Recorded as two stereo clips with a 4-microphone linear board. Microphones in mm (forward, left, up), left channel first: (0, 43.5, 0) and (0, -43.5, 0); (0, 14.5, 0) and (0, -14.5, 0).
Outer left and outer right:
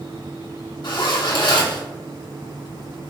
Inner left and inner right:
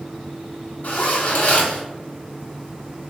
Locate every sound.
0.8 s a zipper: 65° left (ahead or behind), 1.1 m